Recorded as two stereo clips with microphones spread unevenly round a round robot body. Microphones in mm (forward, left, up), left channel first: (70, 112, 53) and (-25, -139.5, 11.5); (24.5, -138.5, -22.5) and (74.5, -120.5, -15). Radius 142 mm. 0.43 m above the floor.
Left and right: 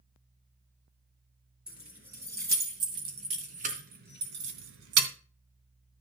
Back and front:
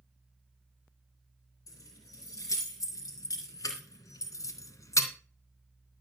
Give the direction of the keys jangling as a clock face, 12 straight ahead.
7 o'clock.